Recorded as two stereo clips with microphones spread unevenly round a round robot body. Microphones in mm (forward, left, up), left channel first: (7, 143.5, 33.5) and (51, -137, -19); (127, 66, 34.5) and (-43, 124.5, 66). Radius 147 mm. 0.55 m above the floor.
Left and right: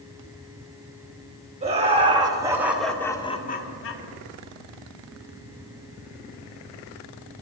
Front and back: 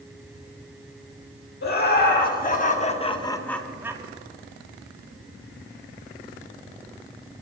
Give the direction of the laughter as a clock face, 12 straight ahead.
1 o'clock.